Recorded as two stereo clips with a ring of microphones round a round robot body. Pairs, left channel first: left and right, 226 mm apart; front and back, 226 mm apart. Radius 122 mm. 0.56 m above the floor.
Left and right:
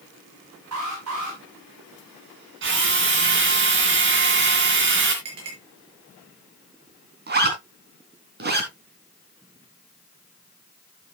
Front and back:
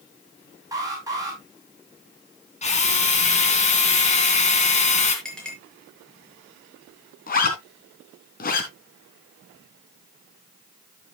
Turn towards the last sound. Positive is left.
turn(degrees=-50)